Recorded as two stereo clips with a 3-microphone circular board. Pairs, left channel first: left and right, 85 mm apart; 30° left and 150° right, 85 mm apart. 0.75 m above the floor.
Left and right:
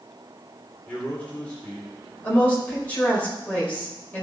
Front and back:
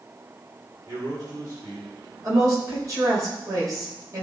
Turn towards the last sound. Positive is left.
turn(degrees=165)